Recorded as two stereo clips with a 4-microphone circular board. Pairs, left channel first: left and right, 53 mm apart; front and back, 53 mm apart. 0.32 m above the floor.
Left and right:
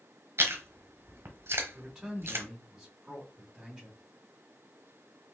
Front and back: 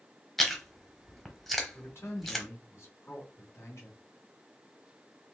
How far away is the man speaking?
About 2.0 m.